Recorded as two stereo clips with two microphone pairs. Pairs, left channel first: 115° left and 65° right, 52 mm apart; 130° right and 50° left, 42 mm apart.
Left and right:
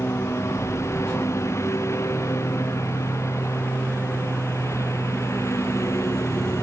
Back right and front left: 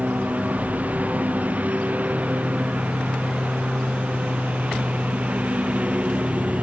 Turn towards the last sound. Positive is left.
turn(degrees=105)